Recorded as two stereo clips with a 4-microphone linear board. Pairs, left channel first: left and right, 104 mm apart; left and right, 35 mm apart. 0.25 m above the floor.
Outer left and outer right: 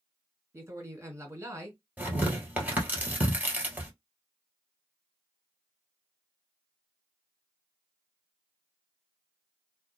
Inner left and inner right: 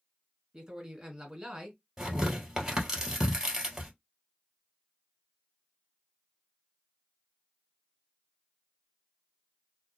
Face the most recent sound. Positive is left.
turn(degrees=-15)  # may be behind; listen again after turning